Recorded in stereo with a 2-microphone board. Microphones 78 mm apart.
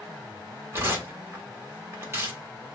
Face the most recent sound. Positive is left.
turn(degrees=-30)  # may be behind; listen again after turning